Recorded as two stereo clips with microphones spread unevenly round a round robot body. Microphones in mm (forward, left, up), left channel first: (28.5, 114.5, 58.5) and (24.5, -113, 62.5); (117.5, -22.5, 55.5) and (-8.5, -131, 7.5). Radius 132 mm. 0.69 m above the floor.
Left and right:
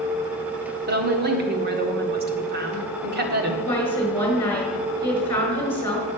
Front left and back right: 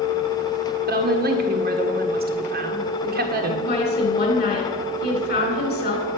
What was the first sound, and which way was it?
A woman speaking, 140° right.